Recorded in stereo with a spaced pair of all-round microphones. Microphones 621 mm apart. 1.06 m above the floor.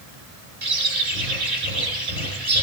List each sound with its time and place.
0.6 s a bird: 65° right (ahead or behind), 2 m